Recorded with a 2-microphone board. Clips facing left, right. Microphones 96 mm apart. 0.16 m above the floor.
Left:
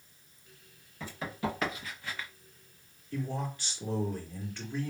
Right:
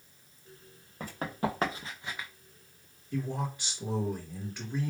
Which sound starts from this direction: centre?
A man speaking, at 3.1 s.